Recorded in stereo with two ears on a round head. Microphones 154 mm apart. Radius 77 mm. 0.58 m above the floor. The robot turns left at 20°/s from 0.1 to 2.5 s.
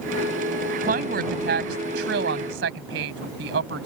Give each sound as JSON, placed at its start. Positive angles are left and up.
{"t": 0.8, "sound": "a woman speaking", "side_deg": -50}